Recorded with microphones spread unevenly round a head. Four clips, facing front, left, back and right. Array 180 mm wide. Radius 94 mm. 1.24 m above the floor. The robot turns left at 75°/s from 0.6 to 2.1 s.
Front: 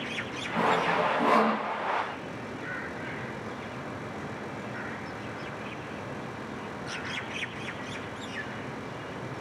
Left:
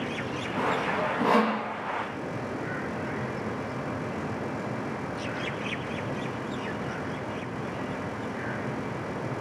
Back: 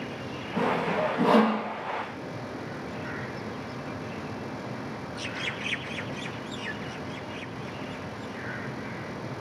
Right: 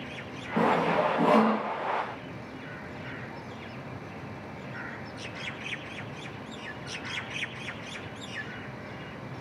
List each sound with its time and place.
0.6 s sawing: 90° right, 8.5 m; by 1.6 s 165° right, 8.5 m